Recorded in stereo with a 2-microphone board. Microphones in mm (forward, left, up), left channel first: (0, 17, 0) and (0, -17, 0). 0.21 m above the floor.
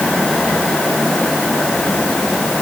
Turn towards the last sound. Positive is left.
No sound to turn to.